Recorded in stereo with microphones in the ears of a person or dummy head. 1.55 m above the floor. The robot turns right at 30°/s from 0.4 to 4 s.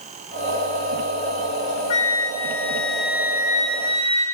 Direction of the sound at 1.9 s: 150° left.